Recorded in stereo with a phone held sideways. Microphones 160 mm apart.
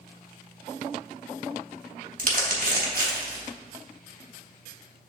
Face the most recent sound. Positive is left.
turn(degrees=-65)  # may be behind; listen again after turning